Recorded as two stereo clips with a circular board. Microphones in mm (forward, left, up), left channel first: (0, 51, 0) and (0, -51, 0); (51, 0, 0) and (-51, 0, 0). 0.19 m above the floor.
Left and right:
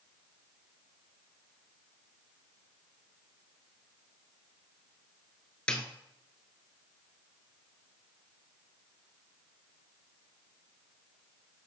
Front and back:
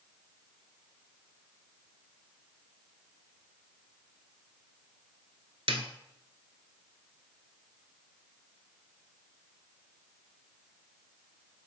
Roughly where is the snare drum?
Behind.